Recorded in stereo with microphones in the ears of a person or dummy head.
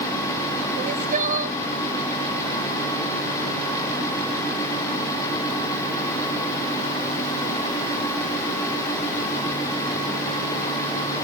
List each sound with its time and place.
0.8 s crying: 45° right (ahead or behind)